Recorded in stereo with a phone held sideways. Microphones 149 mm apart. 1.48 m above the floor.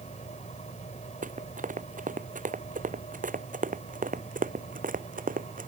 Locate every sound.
0.0 s a fan: 50° left (ahead or behind)
1.2 s running footsteps: 60° right (ahead or behind); by 5.7 s 65° right (ahead or behind)